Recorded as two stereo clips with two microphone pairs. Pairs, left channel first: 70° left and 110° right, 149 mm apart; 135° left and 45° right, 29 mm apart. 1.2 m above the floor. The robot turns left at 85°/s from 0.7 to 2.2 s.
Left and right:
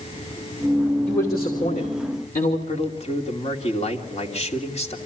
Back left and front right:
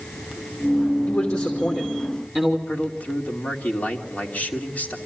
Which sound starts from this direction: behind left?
A man speaking, at 1.1 s.